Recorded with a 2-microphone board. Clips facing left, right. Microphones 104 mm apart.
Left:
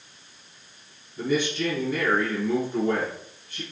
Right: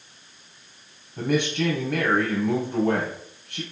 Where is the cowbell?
I don't hear a cowbell.